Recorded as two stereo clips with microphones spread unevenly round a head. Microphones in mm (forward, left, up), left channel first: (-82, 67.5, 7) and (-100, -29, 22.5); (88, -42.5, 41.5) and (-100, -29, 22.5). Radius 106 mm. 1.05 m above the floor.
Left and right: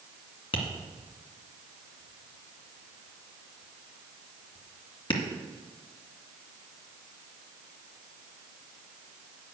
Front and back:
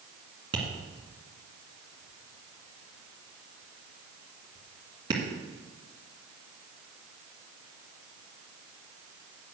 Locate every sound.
0.5 s tapping: 105° left, 2 m